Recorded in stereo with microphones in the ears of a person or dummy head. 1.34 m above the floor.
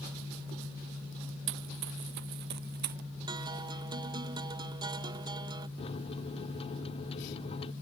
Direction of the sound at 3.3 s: 20° right (ahead or behind).